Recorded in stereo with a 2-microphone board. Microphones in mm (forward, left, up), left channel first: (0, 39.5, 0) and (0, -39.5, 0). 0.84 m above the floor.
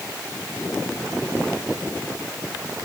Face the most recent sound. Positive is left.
No sound to turn to.